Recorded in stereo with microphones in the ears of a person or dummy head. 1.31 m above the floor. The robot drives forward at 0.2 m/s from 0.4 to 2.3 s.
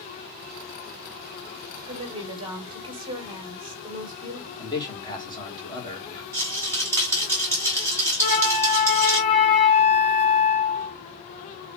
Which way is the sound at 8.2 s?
45° left (ahead or behind).